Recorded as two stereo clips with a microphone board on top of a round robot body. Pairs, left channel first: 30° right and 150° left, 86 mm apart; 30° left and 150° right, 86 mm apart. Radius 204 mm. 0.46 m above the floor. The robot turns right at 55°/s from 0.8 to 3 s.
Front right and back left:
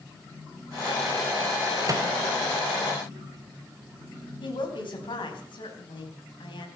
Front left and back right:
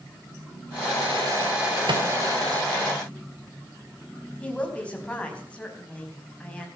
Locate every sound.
1.9 s a microwave: 170° right, 3 m; by 2.1 s 155° right, 3 m
4.4 s a woman speaking: 45° right, 4 m